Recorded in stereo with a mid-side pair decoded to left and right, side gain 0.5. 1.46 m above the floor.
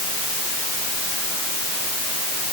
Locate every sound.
Only background noise.